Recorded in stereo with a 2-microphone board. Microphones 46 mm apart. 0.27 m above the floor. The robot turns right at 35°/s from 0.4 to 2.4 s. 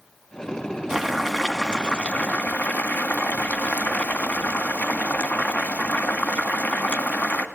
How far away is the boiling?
About 2 m.